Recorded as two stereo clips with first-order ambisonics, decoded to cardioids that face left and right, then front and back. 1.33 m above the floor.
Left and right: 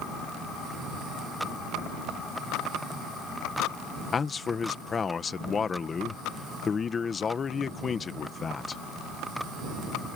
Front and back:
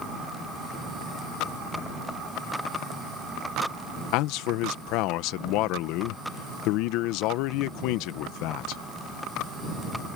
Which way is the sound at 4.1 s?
20° left.